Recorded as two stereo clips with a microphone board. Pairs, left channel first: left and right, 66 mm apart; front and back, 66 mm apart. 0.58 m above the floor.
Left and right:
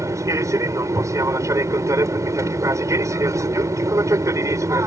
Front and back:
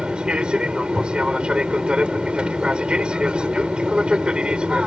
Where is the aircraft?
105° right.